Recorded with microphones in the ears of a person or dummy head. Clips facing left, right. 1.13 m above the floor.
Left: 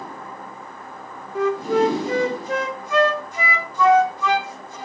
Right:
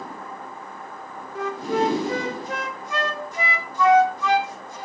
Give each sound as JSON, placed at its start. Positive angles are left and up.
{"t": 1.4, "sound": "a flute", "side_deg": 85, "distance_m": 2.0}